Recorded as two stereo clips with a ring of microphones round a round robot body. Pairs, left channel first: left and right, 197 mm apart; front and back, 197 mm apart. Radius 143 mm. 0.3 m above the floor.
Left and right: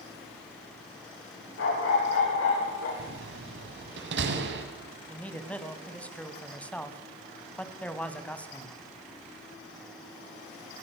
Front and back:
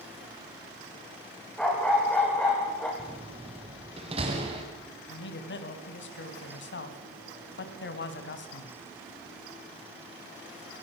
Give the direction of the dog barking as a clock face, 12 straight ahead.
9 o'clock.